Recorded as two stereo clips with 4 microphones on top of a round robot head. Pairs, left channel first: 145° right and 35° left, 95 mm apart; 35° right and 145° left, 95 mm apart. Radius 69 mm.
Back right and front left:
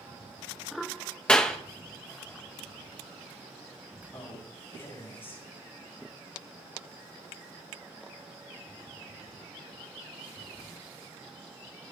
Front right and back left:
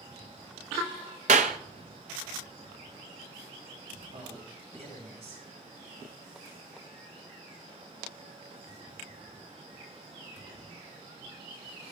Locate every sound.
1.3 s a clap: 140° left, 0.6 m
4.1 s a man speaking: 150° left, 10 m